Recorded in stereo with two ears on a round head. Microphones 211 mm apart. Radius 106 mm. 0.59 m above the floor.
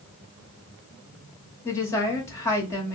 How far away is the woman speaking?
About 1.1 m.